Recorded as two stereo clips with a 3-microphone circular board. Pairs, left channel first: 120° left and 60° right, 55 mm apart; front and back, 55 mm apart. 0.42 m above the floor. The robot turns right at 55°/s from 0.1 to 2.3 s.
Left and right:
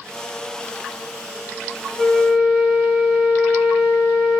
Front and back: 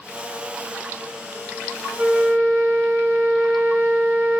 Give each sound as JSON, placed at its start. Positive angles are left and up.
{"t": 2.0, "sound": "a flute", "azimuth_deg": -150, "distance_m": 2.0}